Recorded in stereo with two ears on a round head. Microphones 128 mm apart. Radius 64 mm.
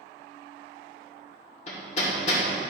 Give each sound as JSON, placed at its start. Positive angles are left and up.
{"t": 1.7, "sound": "hammering", "side_deg": 50, "distance_m": 2.0}